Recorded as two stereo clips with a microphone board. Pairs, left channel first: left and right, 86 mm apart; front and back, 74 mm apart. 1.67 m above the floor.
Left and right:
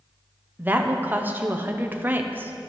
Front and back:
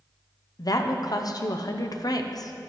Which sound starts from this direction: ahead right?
A woman speaking, at 0.6 s.